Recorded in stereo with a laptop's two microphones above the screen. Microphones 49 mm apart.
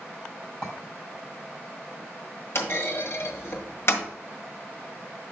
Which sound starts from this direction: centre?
A clink, at 0.6 s.